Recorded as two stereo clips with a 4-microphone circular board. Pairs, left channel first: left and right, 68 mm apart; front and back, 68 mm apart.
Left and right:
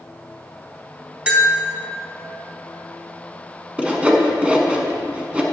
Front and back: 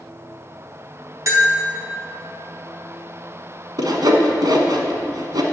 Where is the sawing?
160° right, 1.0 m.